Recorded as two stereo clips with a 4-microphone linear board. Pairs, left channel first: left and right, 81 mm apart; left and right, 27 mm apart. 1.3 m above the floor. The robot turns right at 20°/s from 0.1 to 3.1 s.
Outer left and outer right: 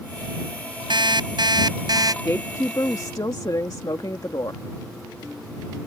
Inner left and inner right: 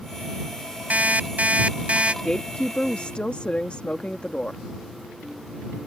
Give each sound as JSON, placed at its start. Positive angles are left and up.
{"t": 0.9, "sound": "an alarm clock", "side_deg": -75}
{"t": 2.2, "sound": "a woman speaking", "side_deg": 35}